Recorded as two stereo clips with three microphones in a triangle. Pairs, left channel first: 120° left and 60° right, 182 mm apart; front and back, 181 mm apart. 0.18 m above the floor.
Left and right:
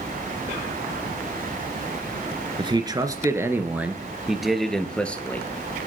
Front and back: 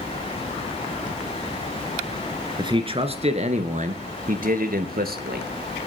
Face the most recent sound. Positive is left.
turn(degrees=-165)